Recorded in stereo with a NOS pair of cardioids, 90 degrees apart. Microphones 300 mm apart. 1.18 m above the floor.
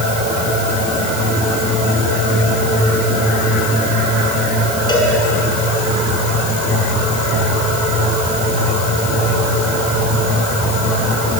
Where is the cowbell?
15° left, 7.5 m.